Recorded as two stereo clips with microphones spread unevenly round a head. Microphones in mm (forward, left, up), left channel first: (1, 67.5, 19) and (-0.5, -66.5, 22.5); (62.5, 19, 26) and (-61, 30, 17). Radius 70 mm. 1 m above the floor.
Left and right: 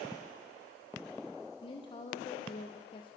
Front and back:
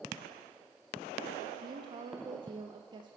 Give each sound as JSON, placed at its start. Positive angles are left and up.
{"t": 1.6, "sound": "a woman speaking", "azimuth_deg": 135, "distance_m": 0.5}